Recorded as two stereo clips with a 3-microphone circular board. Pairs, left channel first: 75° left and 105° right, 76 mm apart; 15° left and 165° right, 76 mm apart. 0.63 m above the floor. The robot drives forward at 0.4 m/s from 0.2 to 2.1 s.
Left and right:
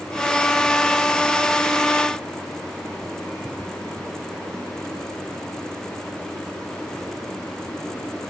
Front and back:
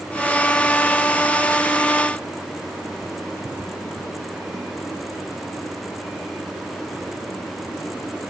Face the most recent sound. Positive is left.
No sound to turn to.